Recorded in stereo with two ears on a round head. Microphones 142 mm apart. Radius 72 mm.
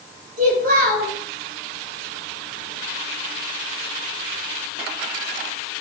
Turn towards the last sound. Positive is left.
turn(degrees=-55)  # may be behind; listen again after turning